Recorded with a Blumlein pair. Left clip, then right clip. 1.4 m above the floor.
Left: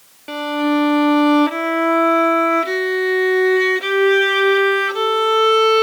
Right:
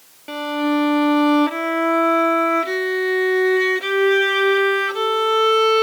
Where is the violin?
5° left.